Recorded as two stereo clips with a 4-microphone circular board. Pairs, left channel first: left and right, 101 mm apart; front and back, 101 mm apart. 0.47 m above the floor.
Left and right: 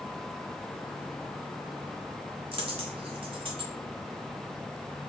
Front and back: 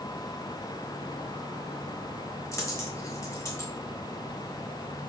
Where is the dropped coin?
60° right, 0.9 m.